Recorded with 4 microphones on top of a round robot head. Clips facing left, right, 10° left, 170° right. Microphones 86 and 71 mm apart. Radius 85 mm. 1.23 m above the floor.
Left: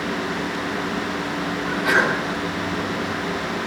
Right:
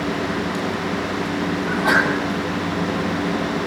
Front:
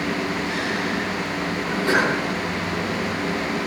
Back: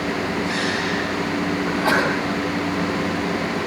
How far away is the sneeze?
About 9 m.